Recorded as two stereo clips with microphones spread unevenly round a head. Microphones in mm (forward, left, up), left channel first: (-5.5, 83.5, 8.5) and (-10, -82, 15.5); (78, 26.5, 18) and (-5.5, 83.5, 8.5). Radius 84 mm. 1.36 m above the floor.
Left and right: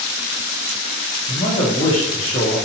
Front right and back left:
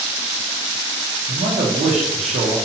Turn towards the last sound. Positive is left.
turn(degrees=150)